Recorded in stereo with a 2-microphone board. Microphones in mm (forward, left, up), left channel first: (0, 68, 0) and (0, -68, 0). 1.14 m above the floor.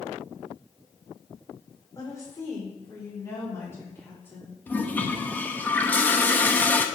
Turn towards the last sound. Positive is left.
turn(degrees=15)  # may be behind; listen again after turning